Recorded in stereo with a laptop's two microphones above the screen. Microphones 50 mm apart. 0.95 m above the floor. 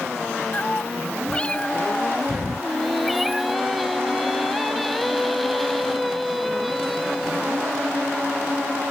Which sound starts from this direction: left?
A cat meowing, at 0.5 s.